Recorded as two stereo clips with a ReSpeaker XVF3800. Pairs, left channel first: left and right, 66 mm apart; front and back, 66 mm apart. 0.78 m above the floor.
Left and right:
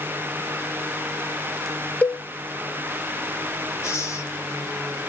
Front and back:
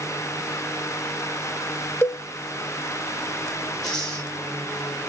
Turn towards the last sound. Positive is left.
turn(degrees=80)